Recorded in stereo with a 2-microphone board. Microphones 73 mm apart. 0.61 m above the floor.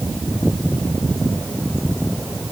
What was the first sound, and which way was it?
Only background noise.